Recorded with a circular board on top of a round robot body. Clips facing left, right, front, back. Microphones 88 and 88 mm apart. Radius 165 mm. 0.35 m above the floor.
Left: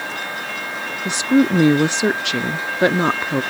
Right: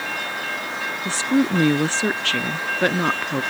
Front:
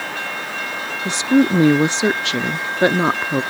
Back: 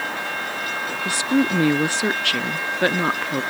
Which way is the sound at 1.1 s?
40° left.